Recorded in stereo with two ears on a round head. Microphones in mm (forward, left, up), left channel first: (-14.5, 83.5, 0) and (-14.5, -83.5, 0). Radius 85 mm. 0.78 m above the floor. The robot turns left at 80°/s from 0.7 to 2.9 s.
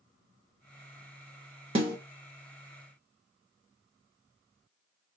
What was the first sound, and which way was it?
A snare drum, 30° right (ahead or behind).